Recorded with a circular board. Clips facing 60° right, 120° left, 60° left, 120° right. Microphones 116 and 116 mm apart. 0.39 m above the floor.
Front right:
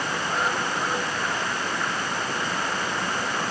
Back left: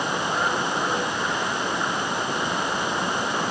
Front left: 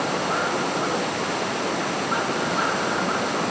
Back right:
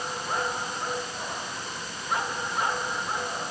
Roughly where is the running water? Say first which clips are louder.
Back left 2 dB, front left 7 dB; ahead left.